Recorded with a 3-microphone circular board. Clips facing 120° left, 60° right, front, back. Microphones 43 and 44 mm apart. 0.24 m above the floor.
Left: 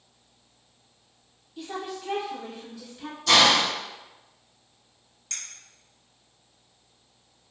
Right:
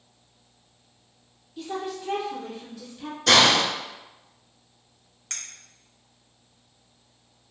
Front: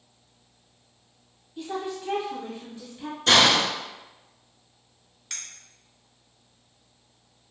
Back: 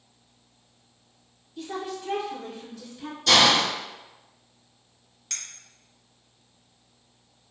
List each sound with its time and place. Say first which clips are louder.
1.6 s a woman speaking: right 3 dB, front 1 dB; 45° left, 1.1 m
3.3 s a hiss: right 1 dB, even; 50° right, 0.8 m
5.3 s a clink: right 1 dB, back 1 dB; 75° right, 1.1 m